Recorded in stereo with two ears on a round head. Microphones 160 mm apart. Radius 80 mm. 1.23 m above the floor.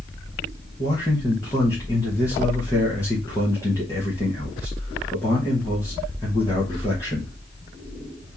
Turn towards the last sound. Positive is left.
turn(degrees=15)  # may be behind; listen again after turning